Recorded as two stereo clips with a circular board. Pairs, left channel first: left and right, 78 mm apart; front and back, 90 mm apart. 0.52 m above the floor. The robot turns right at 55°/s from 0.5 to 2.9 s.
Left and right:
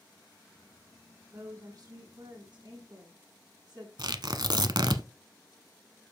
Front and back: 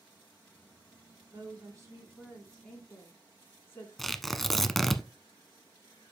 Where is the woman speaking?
145° right, 7 m; by 3.9 s 60° right, 7 m.